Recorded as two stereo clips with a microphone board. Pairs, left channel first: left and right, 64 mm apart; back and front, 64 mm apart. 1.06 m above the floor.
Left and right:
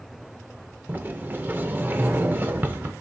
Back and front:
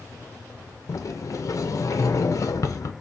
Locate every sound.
0.9 s a sliding door: 145° right, 0.6 m